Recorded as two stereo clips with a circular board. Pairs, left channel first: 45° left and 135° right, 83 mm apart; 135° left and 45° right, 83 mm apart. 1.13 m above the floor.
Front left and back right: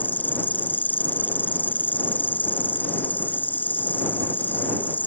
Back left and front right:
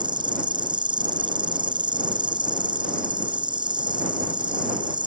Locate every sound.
0.0 s an insect: 25° right